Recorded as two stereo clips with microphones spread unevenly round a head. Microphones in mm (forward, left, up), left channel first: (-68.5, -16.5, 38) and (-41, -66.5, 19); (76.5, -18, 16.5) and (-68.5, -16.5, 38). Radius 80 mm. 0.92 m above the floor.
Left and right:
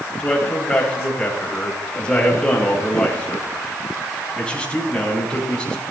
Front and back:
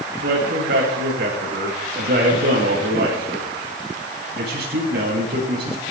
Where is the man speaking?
165° right, 7 m.